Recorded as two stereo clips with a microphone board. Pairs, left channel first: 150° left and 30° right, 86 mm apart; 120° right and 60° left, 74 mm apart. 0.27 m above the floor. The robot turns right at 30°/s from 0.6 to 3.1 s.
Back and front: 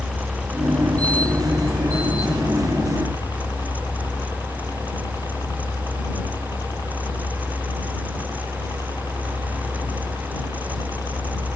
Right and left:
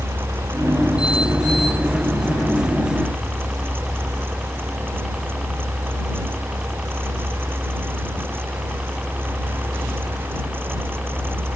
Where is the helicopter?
65° left; by 11.6 s 140° left.